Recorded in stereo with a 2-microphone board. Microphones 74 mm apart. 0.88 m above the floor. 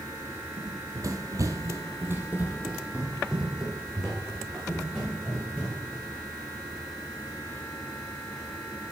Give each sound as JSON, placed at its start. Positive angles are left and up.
{"t": 0.6, "sound": "running footsteps", "side_deg": -50, "distance_m": 1.6}